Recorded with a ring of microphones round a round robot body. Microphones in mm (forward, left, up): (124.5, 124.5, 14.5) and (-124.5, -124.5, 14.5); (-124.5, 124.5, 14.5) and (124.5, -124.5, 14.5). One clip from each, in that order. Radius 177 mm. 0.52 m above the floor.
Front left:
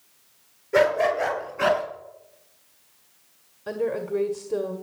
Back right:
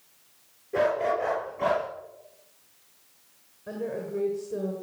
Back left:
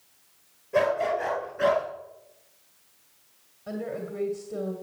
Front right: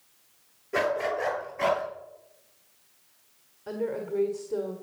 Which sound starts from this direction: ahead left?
A woman speaking, at 3.7 s.